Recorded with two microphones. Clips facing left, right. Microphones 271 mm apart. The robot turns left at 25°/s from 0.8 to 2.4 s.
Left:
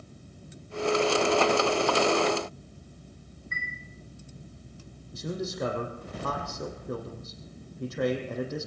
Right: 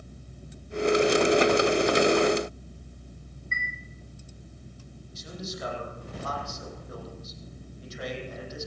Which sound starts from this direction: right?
A chime, at 3.5 s.